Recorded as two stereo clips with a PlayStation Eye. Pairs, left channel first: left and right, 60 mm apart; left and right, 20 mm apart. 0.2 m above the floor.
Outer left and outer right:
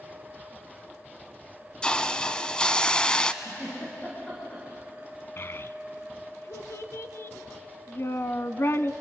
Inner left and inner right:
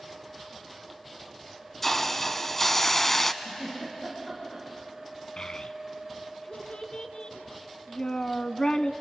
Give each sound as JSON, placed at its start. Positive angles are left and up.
{"t": 1.8, "sound": "a hiss", "side_deg": 15, "distance_m": 0.8}
{"t": 3.4, "sound": "a giggle", "side_deg": 20, "distance_m": 9.5}
{"t": 5.4, "sound": "a child speaking", "side_deg": 45, "distance_m": 1.0}